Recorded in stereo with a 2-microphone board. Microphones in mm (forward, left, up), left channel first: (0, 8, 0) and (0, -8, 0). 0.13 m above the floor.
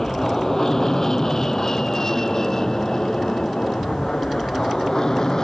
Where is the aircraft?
20° left (ahead or behind); by 5.4 s 30° left (ahead or behind).